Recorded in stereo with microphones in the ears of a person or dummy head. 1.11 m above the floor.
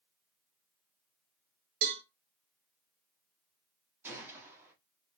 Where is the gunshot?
10° right (ahead or behind), 1.0 m.